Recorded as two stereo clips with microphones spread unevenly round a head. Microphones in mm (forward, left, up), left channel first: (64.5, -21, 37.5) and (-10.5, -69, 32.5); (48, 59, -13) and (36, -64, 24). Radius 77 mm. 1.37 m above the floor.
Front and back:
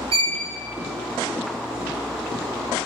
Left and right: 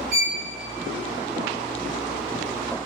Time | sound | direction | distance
0.1 | a violin | 135° right | 0.6 m